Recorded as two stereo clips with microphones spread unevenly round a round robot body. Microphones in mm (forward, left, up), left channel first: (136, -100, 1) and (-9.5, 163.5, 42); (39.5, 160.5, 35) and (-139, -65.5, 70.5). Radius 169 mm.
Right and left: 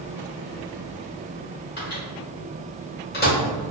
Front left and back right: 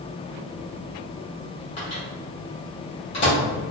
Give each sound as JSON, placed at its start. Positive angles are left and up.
{"t": 1.8, "sound": "a microwave", "azimuth_deg": -10, "distance_m": 1.5}